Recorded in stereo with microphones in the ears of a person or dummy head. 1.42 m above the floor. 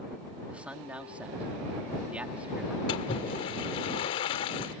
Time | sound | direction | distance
0.5 | a man speaking | centre (ahead or behind) | ?
2.9 | a splash | 20° left (ahead or behind) | ?